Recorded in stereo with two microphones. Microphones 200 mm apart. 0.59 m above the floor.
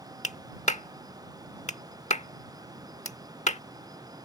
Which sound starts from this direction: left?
A clap, at 0.2 s.